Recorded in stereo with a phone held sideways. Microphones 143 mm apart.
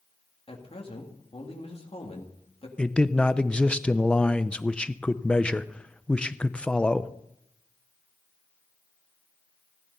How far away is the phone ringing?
No phone ringing in this recording.